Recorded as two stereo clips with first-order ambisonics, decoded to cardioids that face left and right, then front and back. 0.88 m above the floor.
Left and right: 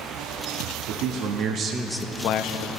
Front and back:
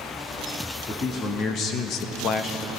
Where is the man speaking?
70° right, 1.6 m; by 2.7 s 70° left, 1.2 m.